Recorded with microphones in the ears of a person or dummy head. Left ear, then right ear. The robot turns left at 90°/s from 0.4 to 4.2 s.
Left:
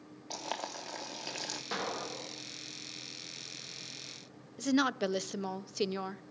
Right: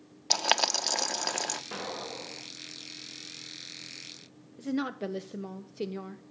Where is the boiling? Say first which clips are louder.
Right 13 dB; 55° right (ahead or behind), 0.9 m; by 1.6 s 15° right (ahead or behind), 0.9 m.